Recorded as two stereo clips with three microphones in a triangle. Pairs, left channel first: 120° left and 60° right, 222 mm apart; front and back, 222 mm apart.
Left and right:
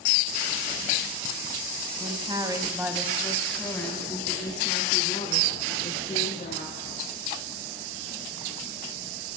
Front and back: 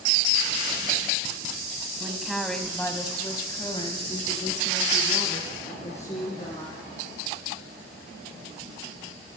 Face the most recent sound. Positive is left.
turn(degrees=60)